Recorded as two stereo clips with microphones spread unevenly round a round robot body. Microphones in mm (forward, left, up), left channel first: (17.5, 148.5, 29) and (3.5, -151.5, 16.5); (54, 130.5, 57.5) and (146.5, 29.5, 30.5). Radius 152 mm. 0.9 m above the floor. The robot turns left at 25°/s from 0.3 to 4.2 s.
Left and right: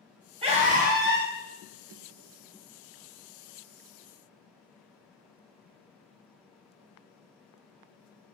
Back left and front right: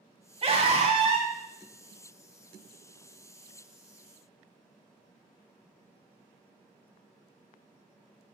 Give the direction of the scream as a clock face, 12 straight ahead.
1 o'clock.